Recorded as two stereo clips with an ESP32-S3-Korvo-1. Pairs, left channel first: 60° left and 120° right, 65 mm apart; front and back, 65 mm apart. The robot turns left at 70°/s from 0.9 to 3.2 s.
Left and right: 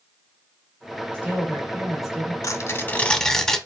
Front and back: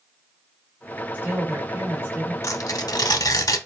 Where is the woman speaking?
140° right, 1.7 m; by 2.3 s 135° left, 1.7 m.